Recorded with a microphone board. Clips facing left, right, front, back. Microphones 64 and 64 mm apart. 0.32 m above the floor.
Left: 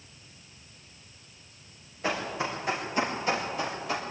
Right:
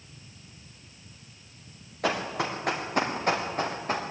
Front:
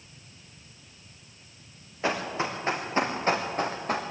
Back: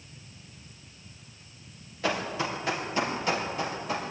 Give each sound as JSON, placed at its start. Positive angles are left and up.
{"t": 2.0, "sound": "running footsteps", "azimuth_deg": -65, "distance_m": 5.0}